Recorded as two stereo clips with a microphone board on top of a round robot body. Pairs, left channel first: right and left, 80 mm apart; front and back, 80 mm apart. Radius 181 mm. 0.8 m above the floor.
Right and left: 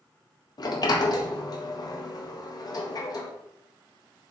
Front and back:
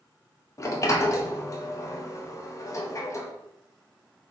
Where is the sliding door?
55° right, 0.7 m.